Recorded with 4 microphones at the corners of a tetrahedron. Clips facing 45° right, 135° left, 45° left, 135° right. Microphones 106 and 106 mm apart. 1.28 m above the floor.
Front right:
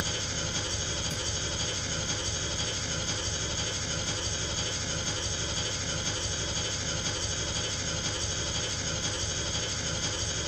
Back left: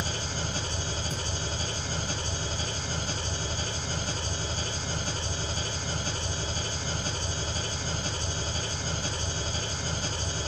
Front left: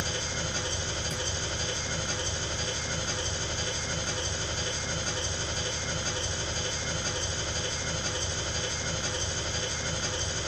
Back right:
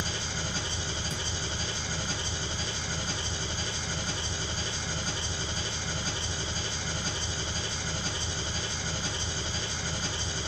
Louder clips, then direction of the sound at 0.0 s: Back left 2 dB, front left 1 dB; 145° left.